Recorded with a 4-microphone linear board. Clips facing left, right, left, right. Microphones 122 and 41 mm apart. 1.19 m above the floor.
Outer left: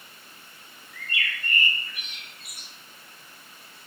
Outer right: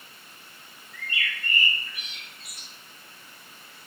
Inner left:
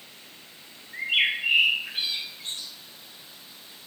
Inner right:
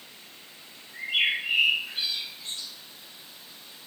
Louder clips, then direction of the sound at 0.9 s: Even, inner left 2 dB; 50° left (ahead or behind).